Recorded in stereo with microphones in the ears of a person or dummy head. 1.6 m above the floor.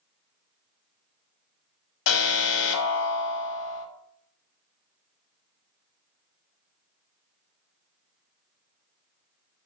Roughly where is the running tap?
No running tap in this recording.